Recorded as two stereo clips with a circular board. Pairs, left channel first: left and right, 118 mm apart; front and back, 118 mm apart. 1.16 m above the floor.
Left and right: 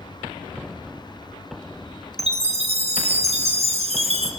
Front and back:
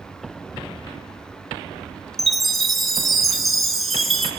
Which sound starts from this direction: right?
A chime, at 2.2 s.